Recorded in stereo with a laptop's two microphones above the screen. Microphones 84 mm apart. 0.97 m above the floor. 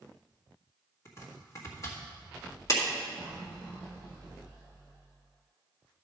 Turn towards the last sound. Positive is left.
turn(degrees=45)  # may be behind; listen again after turning